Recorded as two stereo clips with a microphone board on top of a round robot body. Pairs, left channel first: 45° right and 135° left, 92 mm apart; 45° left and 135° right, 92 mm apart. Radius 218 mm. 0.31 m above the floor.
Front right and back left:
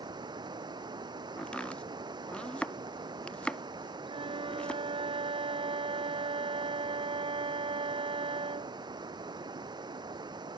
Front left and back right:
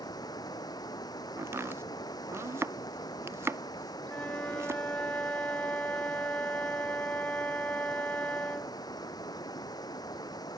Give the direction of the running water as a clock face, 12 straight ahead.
9 o'clock.